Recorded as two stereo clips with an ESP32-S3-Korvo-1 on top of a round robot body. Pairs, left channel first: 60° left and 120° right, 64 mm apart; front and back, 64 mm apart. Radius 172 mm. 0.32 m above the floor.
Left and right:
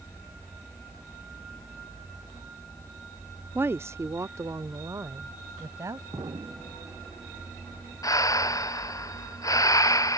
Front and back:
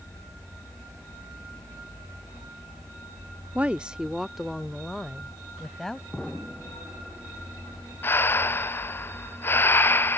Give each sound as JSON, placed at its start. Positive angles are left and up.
{"t": 3.5, "sound": "a woman speaking", "azimuth_deg": -130}
{"t": 6.1, "sound": "an explosion", "azimuth_deg": -90}
{"t": 8.0, "sound": "breathing", "azimuth_deg": 50}